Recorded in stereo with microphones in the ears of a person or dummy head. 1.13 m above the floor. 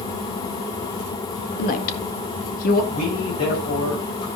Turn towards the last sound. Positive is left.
turn(degrees=50)  # may be behind; listen again after turning